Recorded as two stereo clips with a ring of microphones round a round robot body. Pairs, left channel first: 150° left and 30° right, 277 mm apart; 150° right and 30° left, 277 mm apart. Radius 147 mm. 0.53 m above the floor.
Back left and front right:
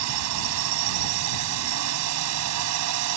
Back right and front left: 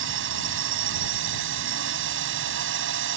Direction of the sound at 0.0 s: 10° right.